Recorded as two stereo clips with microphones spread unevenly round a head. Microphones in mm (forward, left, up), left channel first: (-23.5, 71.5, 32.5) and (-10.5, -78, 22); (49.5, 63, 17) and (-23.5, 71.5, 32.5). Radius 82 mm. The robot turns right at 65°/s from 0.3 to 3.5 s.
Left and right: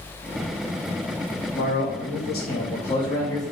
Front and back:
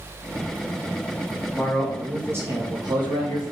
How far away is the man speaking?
About 1.9 m.